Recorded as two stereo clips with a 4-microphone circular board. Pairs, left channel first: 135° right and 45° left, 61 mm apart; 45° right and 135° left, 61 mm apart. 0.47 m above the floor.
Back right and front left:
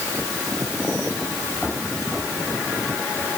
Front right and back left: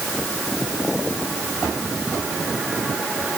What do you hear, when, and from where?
Only background noise.